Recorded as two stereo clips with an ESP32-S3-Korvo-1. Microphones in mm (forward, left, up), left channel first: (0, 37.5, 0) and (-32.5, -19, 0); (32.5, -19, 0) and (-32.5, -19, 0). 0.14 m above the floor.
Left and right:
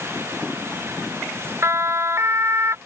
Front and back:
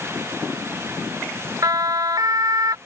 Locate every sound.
1.6 s a siren: 160° right; by 2.8 s 165° right